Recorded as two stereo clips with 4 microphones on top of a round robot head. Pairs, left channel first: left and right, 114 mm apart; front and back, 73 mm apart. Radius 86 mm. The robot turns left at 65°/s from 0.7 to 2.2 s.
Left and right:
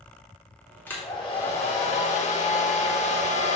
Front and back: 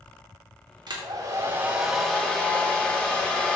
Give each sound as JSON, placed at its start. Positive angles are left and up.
{"t": 0.9, "sound": "a hair dryer", "azimuth_deg": 165, "distance_m": 2.5}